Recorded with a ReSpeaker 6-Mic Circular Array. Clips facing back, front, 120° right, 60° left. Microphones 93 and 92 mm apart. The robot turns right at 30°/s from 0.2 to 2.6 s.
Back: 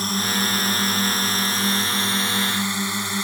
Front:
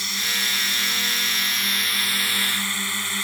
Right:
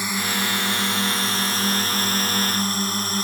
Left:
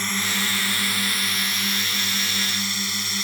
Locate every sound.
0.0 s a drone: 170° left; by 3.2 s 120° right